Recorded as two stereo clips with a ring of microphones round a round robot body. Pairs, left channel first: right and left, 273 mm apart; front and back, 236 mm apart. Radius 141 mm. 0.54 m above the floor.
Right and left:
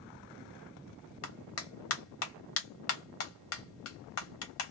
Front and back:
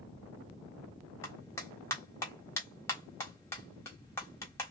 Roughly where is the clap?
Right.